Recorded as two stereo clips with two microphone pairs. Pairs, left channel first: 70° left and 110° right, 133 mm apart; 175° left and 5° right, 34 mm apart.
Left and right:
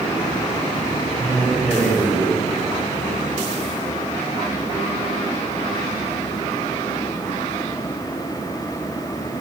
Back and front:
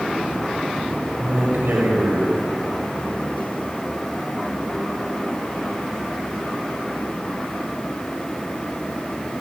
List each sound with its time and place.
1.1 s a man speaking: 15° right, 6 m